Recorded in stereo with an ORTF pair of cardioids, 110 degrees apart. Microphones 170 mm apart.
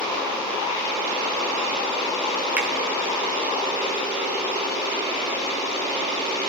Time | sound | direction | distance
2.6 | a finger snap | 10° right | 1.6 m